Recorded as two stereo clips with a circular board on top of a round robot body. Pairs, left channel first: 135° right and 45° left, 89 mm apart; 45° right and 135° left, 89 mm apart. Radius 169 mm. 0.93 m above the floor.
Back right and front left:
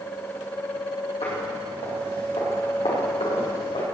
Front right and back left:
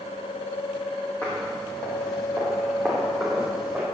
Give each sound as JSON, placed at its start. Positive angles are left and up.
{"t": 1.2, "sound": "footsteps", "azimuth_deg": -125, "distance_m": 3.0}